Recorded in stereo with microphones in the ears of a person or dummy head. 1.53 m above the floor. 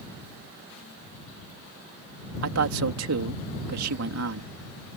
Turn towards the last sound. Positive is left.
turn(degrees=-75)  # may be behind; listen again after turning